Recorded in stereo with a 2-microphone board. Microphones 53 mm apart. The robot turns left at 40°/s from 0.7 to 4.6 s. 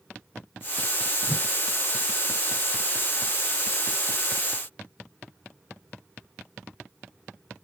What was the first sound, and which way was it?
A whoosh, 10° left (ahead or behind).